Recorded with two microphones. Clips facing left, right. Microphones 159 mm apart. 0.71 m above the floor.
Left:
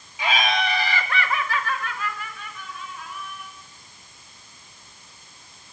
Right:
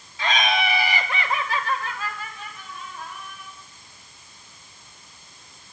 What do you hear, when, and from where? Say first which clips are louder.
0.2 s laughter: even; 15° left (ahead or behind), 1.1 m; by 3.5 s 35° right (ahead or behind), 5 m